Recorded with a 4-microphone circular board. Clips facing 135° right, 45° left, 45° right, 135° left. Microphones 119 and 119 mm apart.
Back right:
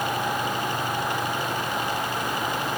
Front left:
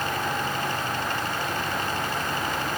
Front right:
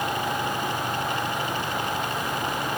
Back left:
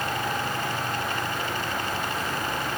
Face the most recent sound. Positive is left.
No sound to turn to.